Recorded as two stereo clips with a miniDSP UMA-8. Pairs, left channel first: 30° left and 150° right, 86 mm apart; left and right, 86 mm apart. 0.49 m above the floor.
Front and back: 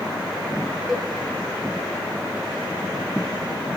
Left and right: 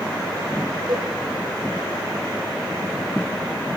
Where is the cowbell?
65° right, 2.5 m.